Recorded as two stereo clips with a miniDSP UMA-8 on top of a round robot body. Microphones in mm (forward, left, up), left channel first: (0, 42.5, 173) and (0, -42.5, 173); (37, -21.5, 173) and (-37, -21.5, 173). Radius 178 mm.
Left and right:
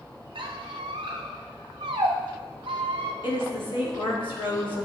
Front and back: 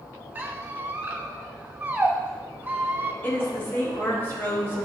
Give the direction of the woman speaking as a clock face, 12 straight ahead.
10 o'clock.